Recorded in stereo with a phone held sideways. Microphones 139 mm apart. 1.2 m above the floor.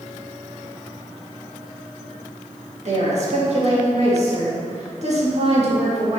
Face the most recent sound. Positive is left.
turn(degrees=-55)  # may be behind; listen again after turning